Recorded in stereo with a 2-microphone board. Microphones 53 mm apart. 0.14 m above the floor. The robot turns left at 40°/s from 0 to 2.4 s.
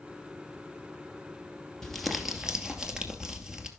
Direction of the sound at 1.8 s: 10° left (ahead or behind).